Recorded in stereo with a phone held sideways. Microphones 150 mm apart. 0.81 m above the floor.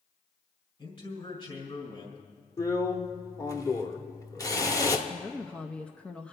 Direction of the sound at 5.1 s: 10° left (ahead or behind).